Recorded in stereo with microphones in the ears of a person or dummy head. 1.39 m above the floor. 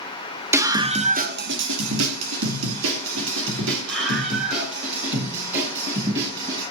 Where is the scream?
10° right (ahead or behind), 1.4 m; by 6.6 s 60° right (ahead or behind), 6 m.